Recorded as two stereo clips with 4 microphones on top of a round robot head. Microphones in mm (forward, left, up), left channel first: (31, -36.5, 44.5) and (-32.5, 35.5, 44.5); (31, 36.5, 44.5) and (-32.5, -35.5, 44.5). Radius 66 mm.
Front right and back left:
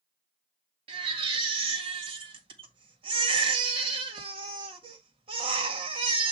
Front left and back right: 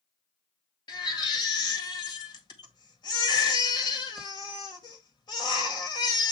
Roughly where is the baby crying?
Left.